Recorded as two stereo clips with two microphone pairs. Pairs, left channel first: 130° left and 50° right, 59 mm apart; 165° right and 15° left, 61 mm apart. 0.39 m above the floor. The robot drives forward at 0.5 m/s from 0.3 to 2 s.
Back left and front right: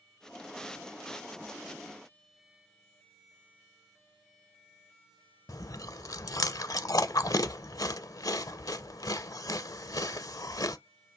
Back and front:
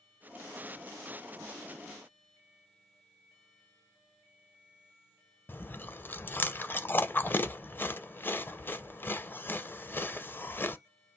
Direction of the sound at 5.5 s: 135° left.